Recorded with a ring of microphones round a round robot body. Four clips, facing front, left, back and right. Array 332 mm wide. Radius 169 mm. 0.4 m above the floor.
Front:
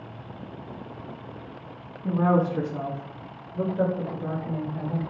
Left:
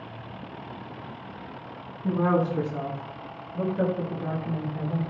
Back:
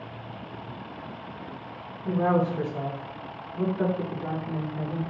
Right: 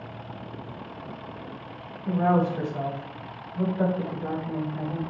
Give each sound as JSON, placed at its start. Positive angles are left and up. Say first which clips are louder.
{"t": 2.0, "sound": "a woman speaking", "louder": "right 1 dB, front 1 dB", "azimuth_deg": 55, "distance_m": 4.0}